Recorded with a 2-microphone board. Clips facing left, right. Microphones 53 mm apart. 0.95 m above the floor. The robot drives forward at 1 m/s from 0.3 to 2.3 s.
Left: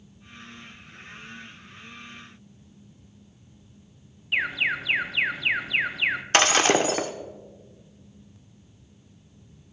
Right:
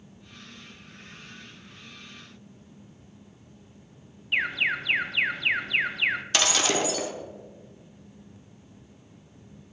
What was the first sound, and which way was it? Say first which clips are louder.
An alarm: left 1 dB; 5° left (ahead or behind).